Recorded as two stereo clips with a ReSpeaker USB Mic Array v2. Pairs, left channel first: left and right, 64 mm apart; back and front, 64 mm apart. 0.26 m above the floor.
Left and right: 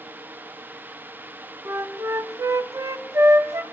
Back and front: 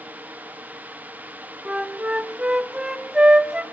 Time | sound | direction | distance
1.6 | a flute | 75° right | 0.6 m